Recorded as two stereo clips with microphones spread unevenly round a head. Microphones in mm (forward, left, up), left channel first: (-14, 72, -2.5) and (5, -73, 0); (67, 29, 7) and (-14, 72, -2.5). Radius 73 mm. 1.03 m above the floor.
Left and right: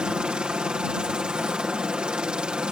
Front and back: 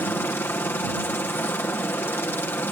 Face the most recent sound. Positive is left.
turn(degrees=-10)